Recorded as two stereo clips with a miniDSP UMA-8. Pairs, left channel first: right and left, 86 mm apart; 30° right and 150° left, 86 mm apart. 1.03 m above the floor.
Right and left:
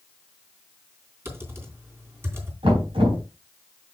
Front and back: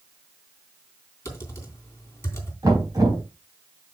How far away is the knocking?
About 4.5 m.